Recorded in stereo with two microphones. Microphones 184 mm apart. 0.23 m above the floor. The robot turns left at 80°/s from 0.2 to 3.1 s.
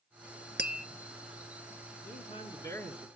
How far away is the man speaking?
About 2.5 m.